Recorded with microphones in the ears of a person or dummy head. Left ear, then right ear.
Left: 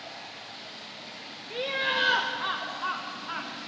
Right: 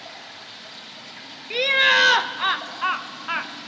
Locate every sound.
0.0 s running water: 50° right (ahead or behind), 3 m
1.5 s laughter: 60° right (ahead or behind), 0.5 m